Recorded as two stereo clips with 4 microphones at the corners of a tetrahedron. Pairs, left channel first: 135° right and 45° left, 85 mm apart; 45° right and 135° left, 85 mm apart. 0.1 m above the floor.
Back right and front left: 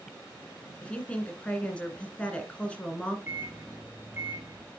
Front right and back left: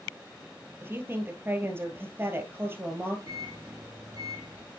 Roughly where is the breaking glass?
I don't hear breaking glass.